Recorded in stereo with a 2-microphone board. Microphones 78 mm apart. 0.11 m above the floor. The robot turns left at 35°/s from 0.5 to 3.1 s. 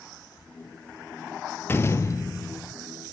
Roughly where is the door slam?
Behind left.